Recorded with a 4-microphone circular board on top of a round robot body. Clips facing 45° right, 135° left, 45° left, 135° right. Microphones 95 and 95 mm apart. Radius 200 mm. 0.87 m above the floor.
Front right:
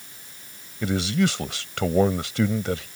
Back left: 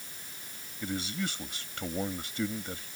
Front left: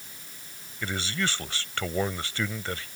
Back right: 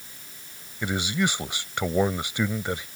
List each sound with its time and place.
0.8 s a man speaking: 60° right